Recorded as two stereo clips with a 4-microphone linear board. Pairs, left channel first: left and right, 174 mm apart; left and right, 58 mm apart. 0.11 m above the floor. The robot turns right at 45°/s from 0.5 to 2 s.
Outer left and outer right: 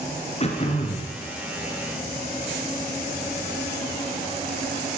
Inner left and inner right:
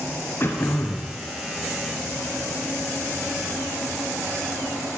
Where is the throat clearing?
40° left (ahead or behind), 1.8 m; by 1.1 s 45° left (ahead or behind), 1.8 m.